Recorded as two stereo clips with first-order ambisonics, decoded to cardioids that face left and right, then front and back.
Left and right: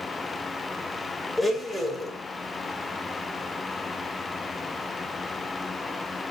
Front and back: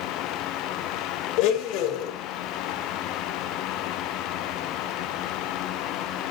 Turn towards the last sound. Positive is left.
turn(degrees=5)